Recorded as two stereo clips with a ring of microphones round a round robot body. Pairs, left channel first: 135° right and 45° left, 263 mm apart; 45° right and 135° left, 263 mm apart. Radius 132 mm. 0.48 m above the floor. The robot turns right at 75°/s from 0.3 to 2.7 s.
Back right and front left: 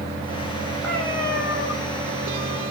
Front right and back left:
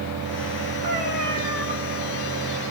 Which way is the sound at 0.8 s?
135° left.